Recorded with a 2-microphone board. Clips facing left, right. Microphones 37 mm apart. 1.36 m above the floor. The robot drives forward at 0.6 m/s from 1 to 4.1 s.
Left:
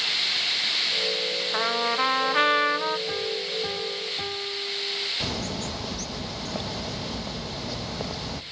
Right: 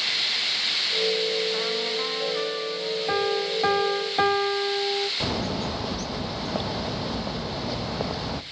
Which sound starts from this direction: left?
A trumpet, at 1.5 s.